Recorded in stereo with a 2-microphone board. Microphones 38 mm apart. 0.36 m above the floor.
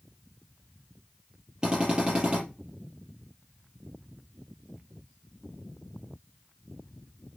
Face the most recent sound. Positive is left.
turn(degrees=-25)  # may be behind; listen again after turning